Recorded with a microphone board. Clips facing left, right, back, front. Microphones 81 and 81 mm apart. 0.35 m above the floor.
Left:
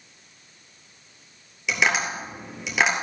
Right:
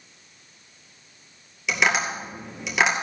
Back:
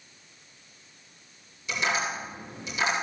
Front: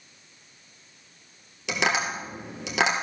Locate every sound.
1.7 s tapping: straight ahead, 2 m